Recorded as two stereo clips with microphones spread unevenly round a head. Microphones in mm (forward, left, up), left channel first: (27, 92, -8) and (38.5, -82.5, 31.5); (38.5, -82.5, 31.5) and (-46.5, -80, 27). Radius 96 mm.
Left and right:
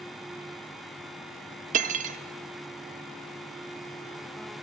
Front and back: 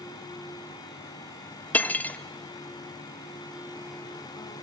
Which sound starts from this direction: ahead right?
Cutlery clinking, at 1.7 s.